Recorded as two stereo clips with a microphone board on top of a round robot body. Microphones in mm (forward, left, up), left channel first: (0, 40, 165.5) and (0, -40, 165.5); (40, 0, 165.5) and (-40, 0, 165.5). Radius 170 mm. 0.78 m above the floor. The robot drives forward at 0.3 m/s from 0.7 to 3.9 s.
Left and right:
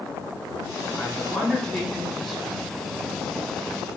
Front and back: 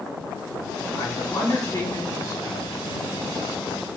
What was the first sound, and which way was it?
A man speaking, 5° left.